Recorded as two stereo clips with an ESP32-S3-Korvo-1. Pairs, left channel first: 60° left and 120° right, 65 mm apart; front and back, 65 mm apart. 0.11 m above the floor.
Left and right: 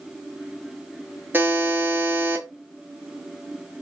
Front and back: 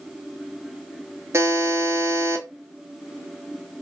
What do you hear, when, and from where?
1.3 s a buzzer: 170° right, 0.6 m